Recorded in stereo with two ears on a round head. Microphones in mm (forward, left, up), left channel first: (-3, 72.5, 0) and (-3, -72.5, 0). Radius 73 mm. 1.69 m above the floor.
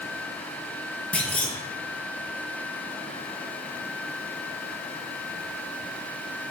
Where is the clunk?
10° left (ahead or behind), 0.8 m.